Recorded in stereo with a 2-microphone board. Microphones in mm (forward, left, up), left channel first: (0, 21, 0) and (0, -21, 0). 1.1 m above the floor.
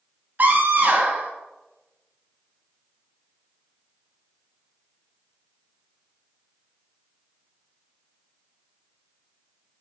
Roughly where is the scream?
Right.